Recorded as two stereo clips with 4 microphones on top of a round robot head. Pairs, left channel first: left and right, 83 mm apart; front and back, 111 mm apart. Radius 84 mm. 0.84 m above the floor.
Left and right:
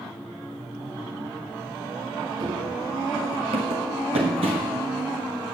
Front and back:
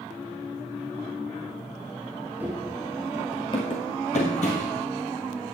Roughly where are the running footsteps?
Right.